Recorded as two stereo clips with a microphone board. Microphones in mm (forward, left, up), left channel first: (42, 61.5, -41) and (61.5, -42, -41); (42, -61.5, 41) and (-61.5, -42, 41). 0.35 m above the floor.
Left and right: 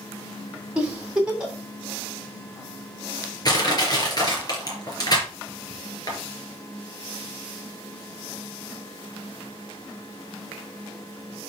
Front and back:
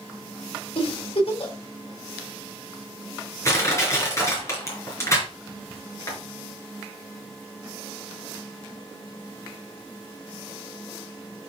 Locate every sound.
0.8 s a giggle: straight ahead, 2.5 m
3.5 s crushing: 50° left, 3.5 m